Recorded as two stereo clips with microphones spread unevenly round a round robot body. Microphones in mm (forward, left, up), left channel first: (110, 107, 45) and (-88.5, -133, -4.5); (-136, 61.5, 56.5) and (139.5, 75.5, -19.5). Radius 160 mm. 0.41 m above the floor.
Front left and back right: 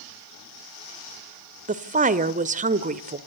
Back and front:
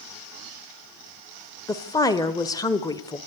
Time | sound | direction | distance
1.7 | a woman speaking | 85° right | 1.3 m